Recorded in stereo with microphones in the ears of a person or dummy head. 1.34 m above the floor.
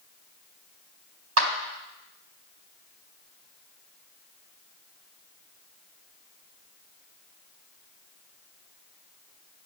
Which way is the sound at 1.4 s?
80° right.